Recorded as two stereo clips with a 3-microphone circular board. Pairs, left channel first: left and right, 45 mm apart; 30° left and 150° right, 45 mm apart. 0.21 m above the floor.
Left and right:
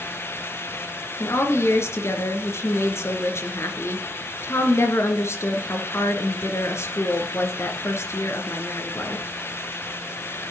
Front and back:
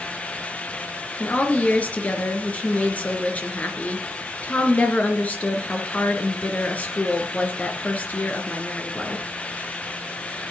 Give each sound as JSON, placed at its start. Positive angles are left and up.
{"t": 1.2, "sound": "a woman speaking", "azimuth_deg": 85, "distance_m": 3.5}